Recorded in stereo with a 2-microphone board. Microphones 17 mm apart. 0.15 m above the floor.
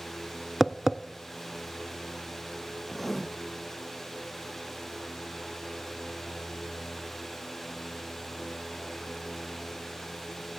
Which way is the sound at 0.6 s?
35° right (ahead or behind).